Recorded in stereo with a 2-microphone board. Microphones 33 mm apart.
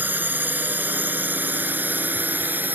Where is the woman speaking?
I don't hear a woman speaking.